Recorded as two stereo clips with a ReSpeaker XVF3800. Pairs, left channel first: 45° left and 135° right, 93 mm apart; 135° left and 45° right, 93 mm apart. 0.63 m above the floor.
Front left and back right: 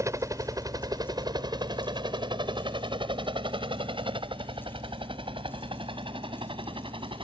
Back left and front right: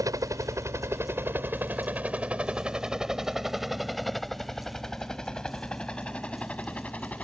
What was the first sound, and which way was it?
A helicopter, 85° right.